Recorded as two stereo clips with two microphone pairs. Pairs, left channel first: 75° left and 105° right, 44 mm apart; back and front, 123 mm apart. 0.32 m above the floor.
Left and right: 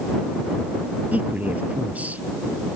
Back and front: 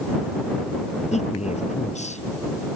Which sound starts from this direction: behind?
A man speaking, at 1.1 s.